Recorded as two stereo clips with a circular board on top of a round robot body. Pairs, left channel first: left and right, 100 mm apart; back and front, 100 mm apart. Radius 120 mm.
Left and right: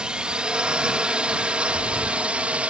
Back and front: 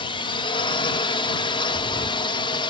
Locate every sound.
0.0 s a drone: 170° right; by 2.7 s 165° right
1.7 s breathing: 130° left